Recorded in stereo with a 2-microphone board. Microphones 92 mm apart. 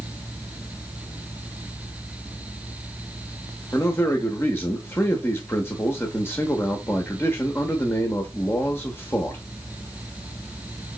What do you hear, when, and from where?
3.7 s a man speaking: 25° left (ahead or behind), 0.8 m